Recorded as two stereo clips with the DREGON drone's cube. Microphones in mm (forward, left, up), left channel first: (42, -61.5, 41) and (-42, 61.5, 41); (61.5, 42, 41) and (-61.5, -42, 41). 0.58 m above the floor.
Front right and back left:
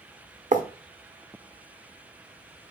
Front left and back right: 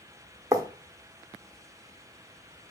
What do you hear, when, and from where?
0.5 s writing: 150° left, 0.9 m